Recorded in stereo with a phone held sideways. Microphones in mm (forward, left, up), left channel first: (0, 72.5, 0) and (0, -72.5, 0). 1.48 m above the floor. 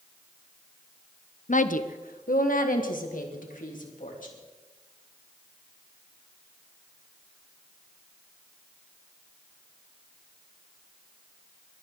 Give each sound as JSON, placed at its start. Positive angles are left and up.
{"t": 1.5, "sound": "a woman speaking", "side_deg": 65, "distance_m": 0.8}